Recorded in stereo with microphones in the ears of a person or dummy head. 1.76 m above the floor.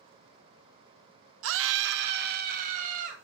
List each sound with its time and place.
1.4 s a scream: 80° right, 0.7 m; by 3.2 s 45° right (ahead or behind), 2.0 m